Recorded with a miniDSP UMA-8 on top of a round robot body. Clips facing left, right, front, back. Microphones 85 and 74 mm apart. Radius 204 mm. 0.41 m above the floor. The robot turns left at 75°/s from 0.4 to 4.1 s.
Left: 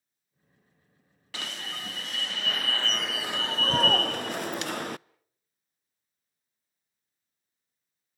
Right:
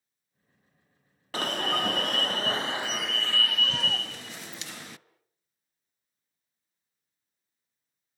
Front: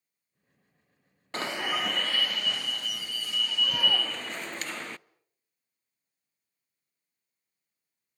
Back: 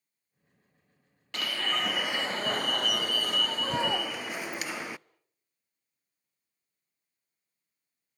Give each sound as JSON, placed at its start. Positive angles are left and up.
{"t": 1.3, "sound": "an alarm", "azimuth_deg": -50, "distance_m": 0.6}